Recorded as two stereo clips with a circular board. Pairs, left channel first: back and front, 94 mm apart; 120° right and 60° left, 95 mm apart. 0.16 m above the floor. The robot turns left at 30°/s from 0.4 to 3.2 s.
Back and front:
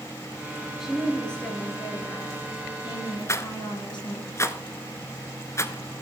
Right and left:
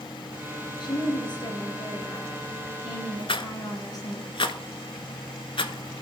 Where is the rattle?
125° right, 0.6 m.